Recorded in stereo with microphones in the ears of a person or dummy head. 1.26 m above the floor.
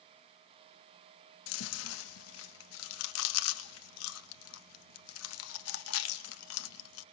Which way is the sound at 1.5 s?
75° left (ahead or behind).